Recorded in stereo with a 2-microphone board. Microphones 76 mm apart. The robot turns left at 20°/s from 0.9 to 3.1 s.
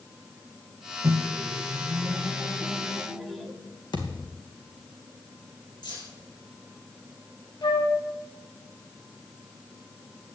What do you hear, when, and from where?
1.0 s a microwave: 140° right, 1.5 m; by 3.5 s straight behind, 1.5 m
3.9 s a thud: 80° left, 2 m
5.8 s keys jangling: 75° left (ahead or behind), 5 m
7.6 s a flute: 70° left (ahead or behind), 3 m